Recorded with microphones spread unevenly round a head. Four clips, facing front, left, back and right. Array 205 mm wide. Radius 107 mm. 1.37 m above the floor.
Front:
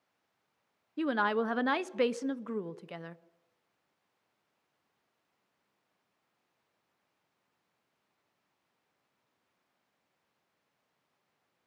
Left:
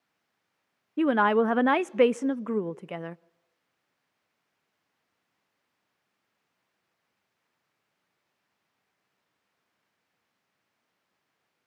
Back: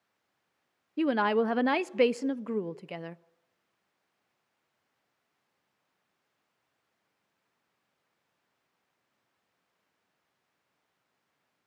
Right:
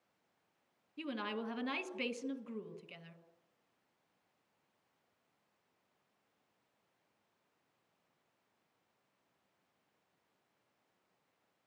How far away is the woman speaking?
About 0.6 m.